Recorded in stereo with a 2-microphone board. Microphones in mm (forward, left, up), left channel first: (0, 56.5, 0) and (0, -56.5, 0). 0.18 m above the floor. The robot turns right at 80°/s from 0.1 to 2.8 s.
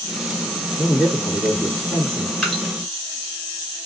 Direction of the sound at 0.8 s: 15° left (ahead or behind).